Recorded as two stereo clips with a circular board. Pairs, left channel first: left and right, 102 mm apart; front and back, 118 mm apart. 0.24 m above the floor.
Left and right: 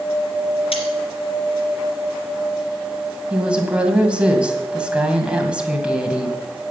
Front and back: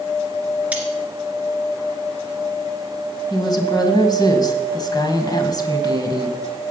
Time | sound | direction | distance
0.7 | cutlery clinking | 105° left | 2.5 m
3.3 | a woman speaking | 20° right | 1.9 m